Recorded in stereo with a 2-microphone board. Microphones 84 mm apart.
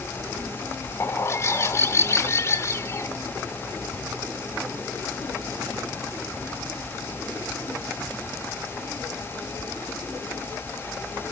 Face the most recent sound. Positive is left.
turn(degrees=35)  # may be behind; listen again after turning